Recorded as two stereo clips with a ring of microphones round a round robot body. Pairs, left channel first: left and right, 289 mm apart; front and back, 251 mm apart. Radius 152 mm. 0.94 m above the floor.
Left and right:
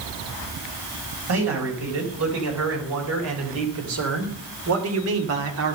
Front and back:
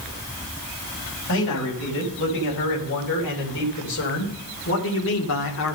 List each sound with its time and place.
1.3 s a man speaking: 50° right, 4.5 m